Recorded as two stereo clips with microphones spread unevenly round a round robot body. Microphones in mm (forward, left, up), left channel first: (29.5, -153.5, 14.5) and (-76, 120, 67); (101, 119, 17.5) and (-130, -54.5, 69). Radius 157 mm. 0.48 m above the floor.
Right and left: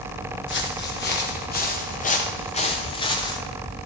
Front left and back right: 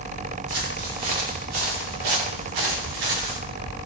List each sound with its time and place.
0.5 s footsteps: 125° right, 3.5 m; by 3.4 s 150° right, 2.5 m